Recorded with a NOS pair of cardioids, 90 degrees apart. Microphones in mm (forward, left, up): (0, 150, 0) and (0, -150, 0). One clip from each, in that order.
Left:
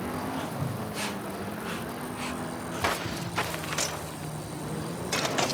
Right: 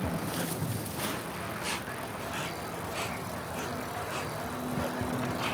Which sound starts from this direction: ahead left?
A whoosh, at 0.5 s.